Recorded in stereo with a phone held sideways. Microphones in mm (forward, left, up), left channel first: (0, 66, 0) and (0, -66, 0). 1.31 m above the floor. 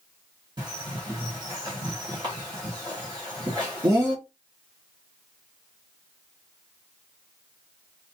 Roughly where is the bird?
Right.